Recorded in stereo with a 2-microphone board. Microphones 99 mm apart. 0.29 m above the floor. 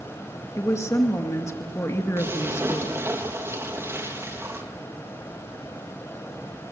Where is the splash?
25° right (ahead or behind), 3 m.